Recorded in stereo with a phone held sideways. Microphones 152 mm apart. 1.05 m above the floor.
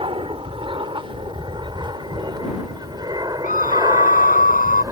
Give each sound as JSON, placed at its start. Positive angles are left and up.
{"t": 0.0, "sound": "an aircraft", "side_deg": -35}
{"t": 3.4, "sound": "a scream", "side_deg": 65}